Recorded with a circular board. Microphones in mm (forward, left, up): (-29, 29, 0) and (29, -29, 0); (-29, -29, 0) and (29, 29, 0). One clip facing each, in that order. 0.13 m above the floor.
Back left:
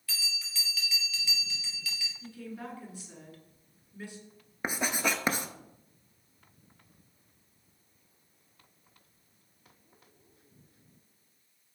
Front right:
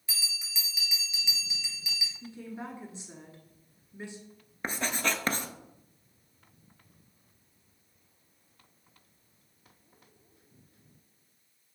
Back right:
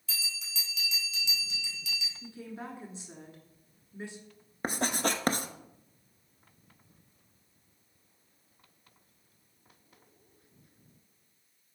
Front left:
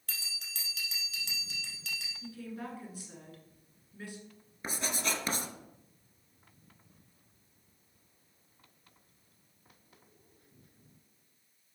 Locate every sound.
0.1 s a bell: 20° left, 1.8 m
2.2 s a woman speaking: 90° right, 1.3 m
4.6 s writing: 150° right, 0.6 m